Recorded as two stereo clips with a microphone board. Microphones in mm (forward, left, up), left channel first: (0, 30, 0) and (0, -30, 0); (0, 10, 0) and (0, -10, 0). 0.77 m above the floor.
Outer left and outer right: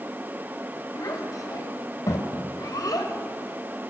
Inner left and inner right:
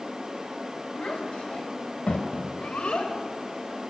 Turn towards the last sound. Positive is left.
turn(degrees=80)